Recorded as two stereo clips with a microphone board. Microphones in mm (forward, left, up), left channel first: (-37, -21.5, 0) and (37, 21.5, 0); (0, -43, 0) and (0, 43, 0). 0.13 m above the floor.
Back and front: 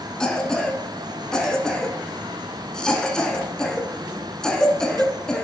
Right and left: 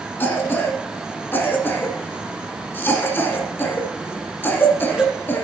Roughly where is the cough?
Right.